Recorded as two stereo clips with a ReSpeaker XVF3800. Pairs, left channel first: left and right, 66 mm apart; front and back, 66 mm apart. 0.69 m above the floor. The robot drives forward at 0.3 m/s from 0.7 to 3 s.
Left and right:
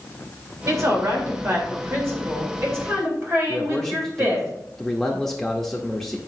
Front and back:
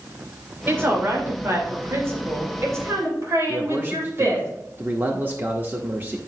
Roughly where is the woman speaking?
Behind right.